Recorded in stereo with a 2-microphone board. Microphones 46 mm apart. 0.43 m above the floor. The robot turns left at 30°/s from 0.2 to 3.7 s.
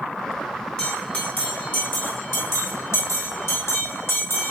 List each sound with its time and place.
0.8 s a bell: 20° left (ahead or behind), 6.5 m; by 4.5 s 70° left (ahead or behind), 6.5 m